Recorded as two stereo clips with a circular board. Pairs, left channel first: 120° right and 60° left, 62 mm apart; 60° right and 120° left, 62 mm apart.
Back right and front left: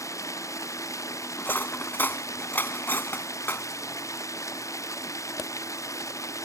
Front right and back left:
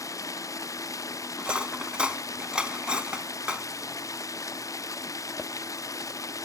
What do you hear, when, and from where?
0.0 s running water: 90° right
1.4 s cutlery clinking: 170° right